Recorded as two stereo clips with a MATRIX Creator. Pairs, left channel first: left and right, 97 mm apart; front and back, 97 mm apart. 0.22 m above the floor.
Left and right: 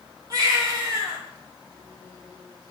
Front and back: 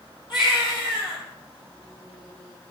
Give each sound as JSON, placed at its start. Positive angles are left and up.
{"t": 0.3, "sound": "a baby crying", "azimuth_deg": -40, "distance_m": 3.5}